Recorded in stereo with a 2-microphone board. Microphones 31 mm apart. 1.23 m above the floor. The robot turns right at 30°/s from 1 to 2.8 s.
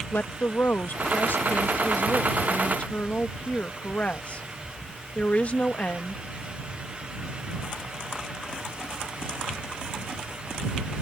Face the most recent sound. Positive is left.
turn(degrees=135)